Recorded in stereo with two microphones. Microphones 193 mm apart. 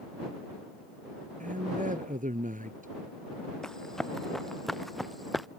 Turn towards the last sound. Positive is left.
turn(degrees=0)  # may be behind; listen again after turning